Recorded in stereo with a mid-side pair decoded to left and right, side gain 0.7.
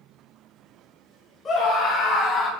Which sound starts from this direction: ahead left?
A scream, at 1.4 s.